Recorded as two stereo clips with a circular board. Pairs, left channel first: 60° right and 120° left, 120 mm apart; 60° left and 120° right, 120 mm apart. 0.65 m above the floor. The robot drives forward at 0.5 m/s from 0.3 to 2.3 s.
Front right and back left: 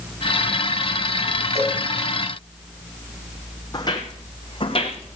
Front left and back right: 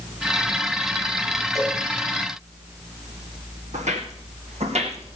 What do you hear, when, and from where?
1.6 s a cowbell: 150° left, 3.5 m; by 1.8 s 155° left, 3.5 m
3.7 s footsteps: 115° right, 2.5 m; by 5.2 s 95° right, 2.5 m